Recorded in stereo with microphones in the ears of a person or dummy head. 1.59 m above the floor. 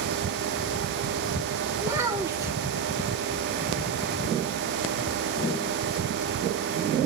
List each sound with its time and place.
1.8 s a child speaking: 15° right (ahead or behind), 2.0 m